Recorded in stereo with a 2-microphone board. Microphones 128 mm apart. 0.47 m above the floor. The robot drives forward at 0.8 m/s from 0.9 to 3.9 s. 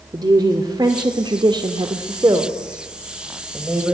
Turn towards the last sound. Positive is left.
turn(degrees=-15)  # may be behind; listen again after turning